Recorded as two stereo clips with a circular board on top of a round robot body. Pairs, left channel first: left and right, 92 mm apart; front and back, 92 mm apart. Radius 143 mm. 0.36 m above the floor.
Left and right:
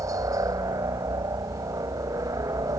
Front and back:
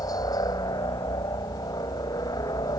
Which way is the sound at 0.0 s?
40° right.